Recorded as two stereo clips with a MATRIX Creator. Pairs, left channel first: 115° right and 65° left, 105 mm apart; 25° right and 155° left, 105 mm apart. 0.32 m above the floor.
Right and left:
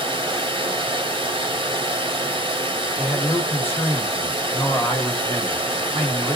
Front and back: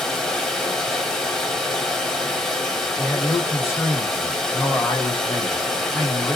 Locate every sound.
0.0 s running water: 65° left, 1.2 m
3.0 s a man speaking: 60° right, 1.6 m